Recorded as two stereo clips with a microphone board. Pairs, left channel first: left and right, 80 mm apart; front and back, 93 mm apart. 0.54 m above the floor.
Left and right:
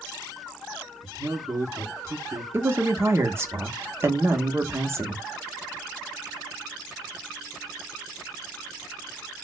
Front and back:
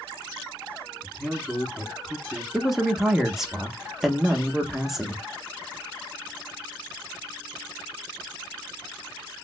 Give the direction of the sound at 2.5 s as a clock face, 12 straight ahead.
3 o'clock.